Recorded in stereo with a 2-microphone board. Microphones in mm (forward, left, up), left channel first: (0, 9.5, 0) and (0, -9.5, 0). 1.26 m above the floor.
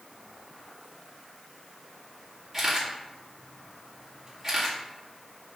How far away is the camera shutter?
About 2.5 m.